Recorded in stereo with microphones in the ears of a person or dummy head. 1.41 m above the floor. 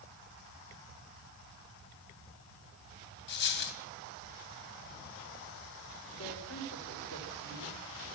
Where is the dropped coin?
55° left (ahead or behind), 3 m.